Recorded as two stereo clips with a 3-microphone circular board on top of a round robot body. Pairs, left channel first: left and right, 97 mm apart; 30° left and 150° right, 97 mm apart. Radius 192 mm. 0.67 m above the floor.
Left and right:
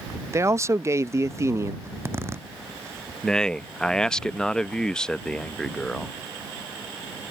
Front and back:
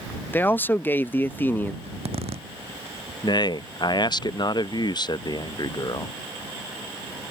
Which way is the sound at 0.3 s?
35° right.